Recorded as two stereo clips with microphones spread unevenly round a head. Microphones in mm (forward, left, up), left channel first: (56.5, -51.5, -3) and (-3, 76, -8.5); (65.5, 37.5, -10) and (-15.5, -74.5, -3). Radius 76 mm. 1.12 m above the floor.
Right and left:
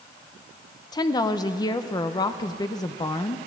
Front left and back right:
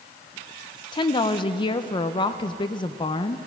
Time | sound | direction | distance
0.9 | a woman speaking | straight ahead | 0.5 m